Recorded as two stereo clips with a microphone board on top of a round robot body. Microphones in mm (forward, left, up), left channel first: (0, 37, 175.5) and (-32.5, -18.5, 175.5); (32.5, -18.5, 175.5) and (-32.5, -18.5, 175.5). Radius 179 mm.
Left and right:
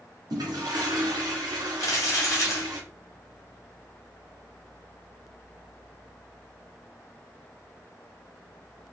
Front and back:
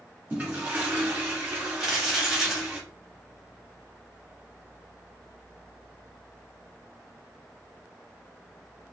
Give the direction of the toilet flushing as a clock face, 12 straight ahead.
4 o'clock.